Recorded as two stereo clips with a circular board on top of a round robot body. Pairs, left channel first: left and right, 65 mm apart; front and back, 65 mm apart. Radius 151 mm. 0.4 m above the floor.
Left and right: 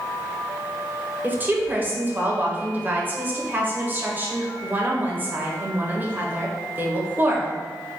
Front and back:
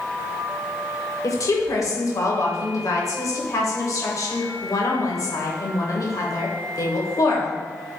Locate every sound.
1.2 s a woman speaking: 30° right, 2 m